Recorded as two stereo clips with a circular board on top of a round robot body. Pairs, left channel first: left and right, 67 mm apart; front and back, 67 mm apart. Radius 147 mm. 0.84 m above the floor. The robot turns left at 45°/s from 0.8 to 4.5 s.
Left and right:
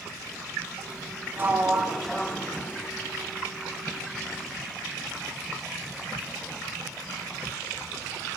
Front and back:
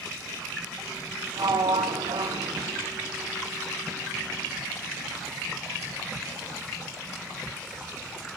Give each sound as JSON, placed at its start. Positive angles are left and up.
{"t": 1.4, "sound": "a sliding door", "azimuth_deg": -150, "distance_m": 1.3}